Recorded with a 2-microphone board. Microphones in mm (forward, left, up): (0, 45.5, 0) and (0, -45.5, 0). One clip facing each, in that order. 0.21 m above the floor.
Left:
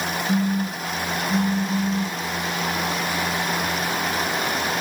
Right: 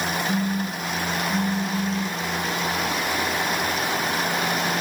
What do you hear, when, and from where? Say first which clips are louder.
0.3 s a phone buzzing: left 2 dB; 10° left (ahead or behind), 7.5 m